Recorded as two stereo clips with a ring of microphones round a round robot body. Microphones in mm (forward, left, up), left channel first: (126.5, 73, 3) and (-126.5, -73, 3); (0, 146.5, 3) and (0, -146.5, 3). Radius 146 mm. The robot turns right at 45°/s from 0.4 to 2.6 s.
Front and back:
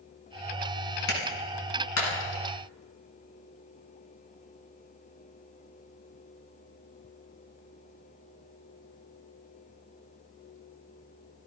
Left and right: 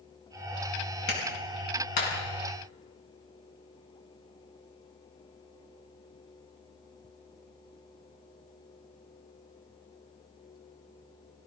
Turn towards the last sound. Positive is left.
turn(degrees=100)